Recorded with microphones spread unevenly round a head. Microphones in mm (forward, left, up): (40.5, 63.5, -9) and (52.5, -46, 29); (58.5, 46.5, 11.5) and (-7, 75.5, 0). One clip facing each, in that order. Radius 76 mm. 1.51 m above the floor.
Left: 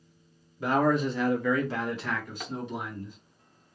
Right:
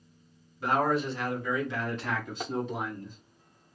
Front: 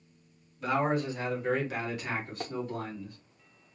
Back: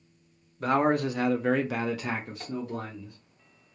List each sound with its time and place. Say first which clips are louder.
0.6 s a man speaking: left 2 dB, back 4 dB; 110° left, 0.9 m; by 3.2 s 130° right, 1.2 m
2.4 s tapping: right 4 dB, front 3 dB; 15° right, 0.6 m